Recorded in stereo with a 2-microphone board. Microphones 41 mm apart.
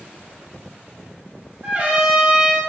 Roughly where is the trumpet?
Right.